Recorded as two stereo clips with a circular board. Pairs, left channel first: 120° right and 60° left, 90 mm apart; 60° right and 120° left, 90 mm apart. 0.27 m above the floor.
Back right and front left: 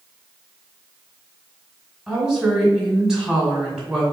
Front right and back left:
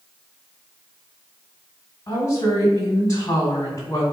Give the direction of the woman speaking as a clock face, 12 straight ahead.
1 o'clock.